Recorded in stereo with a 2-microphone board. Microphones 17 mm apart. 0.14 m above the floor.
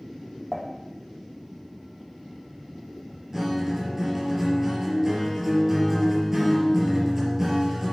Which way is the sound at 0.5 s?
40° left (ahead or behind).